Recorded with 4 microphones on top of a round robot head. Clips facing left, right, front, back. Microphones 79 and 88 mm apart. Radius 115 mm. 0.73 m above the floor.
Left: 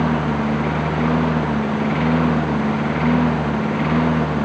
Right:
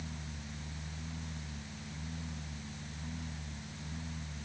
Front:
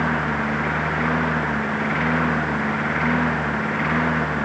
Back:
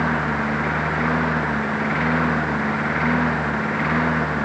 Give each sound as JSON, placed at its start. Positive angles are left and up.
{"t": 0.0, "sound": "a lawn mower", "azimuth_deg": 90}